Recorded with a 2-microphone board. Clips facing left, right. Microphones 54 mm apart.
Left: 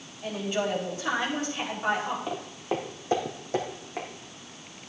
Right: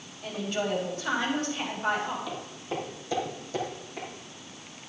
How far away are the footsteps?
About 1.5 m.